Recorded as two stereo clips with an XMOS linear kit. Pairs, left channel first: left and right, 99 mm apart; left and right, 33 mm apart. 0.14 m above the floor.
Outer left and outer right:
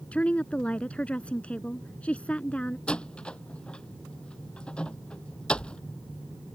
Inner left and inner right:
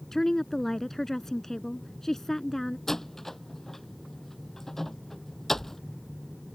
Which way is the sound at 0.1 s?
10° left (ahead or behind).